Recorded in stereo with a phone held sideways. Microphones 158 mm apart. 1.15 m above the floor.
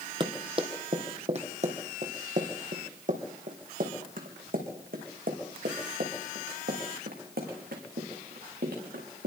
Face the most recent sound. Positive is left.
turn(degrees=-80)